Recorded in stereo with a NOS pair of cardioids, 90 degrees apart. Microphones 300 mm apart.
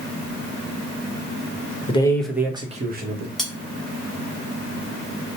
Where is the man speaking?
20° left, 1.0 m; by 3.3 s 40° right, 1.2 m.